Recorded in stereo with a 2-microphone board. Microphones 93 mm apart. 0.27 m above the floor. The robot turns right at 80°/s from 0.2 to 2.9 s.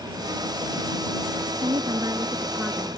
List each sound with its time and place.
1.6 s a woman speaking: 85° right; by 2.9 s 20° left